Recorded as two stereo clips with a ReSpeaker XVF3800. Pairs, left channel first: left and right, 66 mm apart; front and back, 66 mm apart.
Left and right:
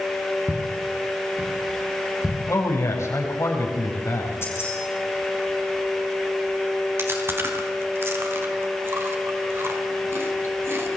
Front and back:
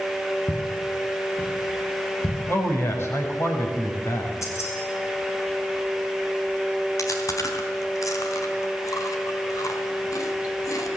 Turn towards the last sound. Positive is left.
turn(degrees=-40)